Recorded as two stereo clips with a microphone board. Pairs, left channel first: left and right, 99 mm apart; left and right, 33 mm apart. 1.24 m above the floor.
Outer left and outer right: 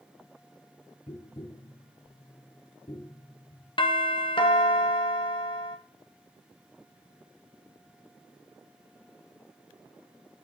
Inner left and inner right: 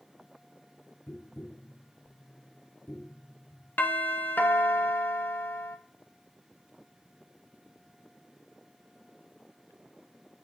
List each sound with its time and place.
1.1 s tapping: 65° left (ahead or behind), 1.2 m
3.8 s a doorbell: 60° left (ahead or behind), 0.9 m